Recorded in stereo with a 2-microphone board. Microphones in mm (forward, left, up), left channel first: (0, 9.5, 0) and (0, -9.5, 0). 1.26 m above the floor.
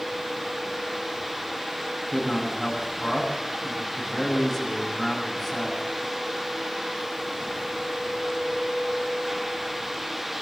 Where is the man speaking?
5° right (ahead or behind), 9.5 m.